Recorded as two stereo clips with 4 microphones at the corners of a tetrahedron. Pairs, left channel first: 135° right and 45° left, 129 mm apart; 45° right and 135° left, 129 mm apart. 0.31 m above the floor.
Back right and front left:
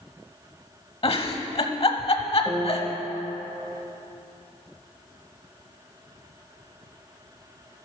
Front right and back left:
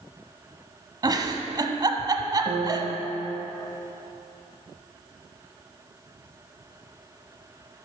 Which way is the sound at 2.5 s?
145° left.